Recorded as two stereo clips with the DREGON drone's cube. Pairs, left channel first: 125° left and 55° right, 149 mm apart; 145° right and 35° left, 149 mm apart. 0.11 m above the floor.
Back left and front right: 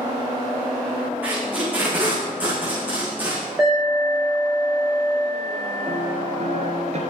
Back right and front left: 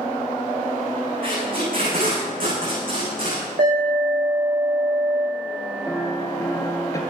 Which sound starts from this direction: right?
A piano, at 5.9 s.